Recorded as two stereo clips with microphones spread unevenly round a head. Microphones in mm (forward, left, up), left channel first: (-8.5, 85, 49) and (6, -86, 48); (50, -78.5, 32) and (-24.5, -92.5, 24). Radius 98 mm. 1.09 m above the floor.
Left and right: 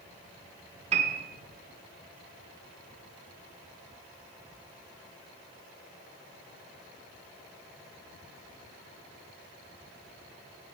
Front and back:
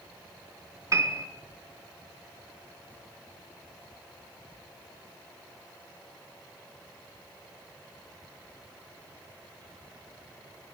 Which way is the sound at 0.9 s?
135° right.